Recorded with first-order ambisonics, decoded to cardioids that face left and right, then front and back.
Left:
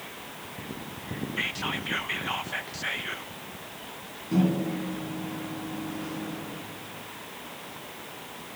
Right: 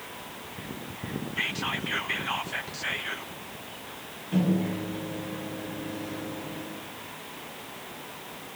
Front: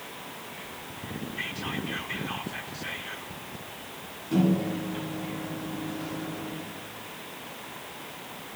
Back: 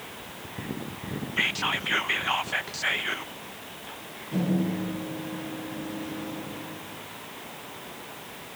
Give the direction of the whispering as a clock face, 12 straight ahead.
6 o'clock.